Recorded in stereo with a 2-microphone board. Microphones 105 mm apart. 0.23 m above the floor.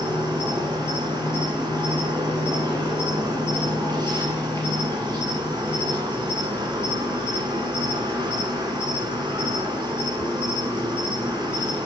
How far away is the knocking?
No knocking in this recording.